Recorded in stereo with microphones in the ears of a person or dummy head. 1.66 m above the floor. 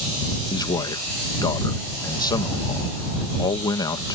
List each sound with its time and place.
0.5 s a man speaking: 15° left (ahead or behind)